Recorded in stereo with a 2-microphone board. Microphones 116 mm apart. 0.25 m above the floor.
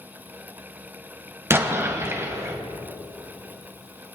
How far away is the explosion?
About 1.4 m.